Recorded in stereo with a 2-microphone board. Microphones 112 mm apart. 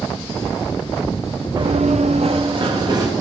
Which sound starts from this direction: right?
Running footsteps, at 1.6 s.